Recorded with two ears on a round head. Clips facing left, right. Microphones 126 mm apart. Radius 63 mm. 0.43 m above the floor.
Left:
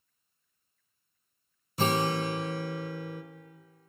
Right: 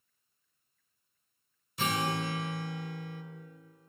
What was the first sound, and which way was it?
A guitar, 30° left (ahead or behind).